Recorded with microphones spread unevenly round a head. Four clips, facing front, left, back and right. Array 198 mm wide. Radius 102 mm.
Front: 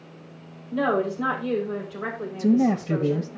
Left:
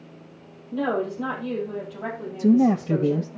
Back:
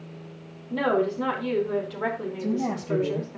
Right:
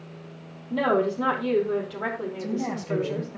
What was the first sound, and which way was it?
A woman speaking, 115° right.